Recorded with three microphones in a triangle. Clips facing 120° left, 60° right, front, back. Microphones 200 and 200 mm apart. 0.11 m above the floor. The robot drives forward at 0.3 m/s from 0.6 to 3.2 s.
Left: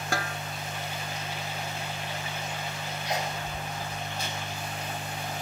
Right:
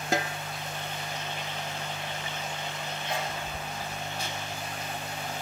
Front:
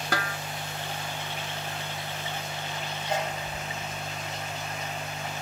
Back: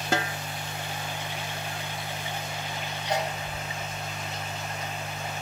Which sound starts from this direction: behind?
A sneeze, at 3.0 s.